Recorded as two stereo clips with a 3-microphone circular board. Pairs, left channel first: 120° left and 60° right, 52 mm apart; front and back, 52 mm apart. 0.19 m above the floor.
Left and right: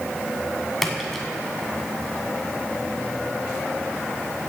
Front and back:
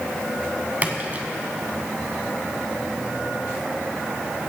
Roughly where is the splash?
Behind right.